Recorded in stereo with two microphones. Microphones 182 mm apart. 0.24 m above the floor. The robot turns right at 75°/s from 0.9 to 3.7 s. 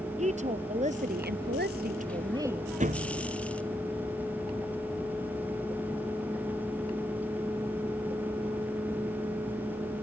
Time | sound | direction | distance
0.2 | a woman speaking | 135° right | ?
2.8 | a thud | 135° right | ?